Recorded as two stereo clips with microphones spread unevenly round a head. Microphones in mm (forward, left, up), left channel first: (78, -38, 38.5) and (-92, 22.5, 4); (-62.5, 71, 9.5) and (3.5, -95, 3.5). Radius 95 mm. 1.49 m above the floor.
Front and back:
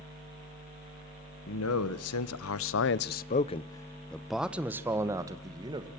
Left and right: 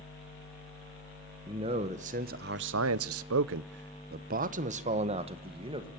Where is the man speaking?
Straight ahead, 1.3 m; by 5.9 s 130° right, 1.9 m.